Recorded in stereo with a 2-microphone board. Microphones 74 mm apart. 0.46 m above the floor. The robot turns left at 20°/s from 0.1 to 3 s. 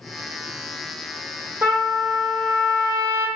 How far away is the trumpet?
About 1.0 m.